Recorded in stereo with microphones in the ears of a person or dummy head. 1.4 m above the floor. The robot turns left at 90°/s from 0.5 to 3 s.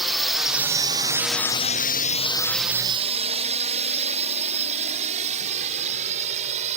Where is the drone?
Centre (ahead or behind); by 6.8 s 35° right (ahead or behind).